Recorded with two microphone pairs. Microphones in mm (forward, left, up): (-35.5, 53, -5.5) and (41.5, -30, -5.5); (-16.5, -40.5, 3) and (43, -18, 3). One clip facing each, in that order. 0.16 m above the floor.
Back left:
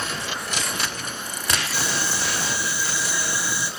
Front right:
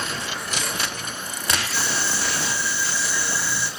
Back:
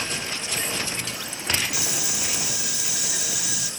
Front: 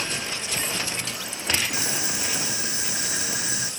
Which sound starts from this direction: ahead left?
Boiling, at 1.7 s.